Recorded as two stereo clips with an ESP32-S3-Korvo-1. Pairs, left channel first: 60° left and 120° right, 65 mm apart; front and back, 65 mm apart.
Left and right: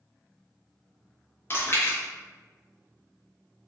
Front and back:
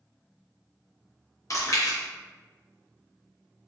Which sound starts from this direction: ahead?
Chewing, at 1.5 s.